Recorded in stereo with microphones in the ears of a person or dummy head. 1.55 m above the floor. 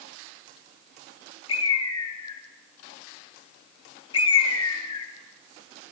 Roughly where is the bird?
Left.